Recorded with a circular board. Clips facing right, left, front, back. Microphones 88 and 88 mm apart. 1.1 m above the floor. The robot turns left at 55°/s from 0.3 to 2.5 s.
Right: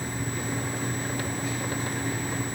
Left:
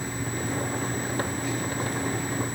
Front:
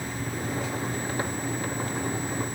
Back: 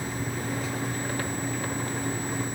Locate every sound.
Only background noise.